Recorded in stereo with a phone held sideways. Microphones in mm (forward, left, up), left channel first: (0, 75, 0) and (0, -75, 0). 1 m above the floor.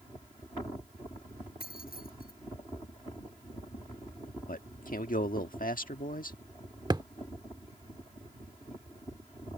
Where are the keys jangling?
80° left.